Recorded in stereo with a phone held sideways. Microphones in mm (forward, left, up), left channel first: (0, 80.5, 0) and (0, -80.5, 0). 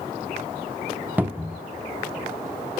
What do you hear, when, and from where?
1.2 s a cupboard door: 10° right (ahead or behind), 0.8 m